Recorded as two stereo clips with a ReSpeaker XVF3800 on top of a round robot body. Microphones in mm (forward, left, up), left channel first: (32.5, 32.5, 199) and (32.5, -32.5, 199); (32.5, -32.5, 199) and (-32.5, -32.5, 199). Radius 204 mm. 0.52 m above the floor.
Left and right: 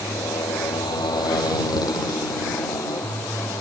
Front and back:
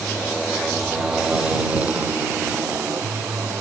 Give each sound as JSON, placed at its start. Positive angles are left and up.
{"t": 0.0, "sound": "a motorcycle", "azimuth_deg": 80}